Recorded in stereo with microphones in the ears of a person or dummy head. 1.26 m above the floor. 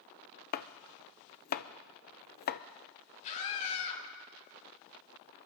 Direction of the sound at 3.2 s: 45° left (ahead or behind).